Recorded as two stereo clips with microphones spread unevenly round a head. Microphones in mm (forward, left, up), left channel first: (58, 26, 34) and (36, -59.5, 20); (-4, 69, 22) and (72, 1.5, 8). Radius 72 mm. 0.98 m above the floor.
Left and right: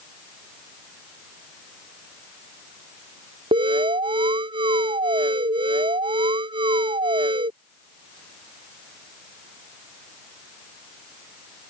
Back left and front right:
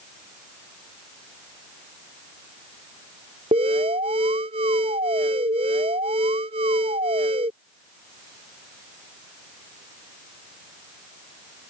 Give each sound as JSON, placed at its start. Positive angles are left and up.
{"t": 3.5, "sound": "an alarm", "azimuth_deg": -85}